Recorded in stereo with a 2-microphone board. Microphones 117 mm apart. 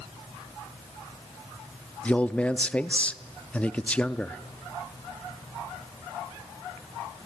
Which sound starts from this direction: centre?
A man speaking, at 2.0 s.